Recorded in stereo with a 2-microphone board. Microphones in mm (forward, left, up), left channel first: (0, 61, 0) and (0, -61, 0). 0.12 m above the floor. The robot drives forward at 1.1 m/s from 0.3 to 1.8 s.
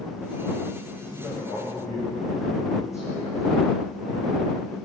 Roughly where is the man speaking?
Left.